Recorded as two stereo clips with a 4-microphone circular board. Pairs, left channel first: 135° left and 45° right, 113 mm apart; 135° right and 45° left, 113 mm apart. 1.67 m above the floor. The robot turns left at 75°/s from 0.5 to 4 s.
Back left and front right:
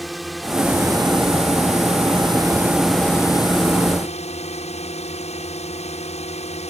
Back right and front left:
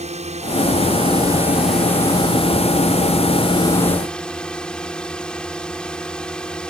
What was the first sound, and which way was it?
A drone, 45° left.